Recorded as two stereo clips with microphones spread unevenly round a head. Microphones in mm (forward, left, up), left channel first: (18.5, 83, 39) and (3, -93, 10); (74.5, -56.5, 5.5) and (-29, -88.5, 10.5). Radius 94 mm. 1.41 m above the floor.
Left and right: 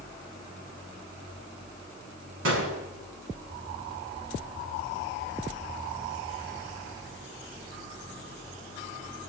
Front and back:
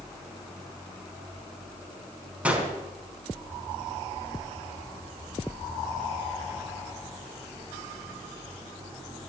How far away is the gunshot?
About 4.5 m.